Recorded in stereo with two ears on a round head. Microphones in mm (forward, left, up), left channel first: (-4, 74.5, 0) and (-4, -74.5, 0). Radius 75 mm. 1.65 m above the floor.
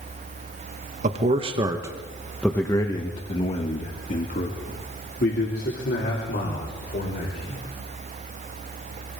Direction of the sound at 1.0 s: 45° right (ahead or behind).